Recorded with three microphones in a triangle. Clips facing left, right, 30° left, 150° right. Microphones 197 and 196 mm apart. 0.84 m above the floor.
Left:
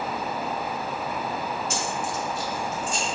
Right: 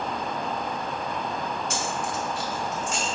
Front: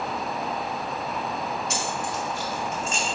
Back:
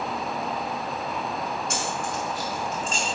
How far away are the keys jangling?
About 2.5 m.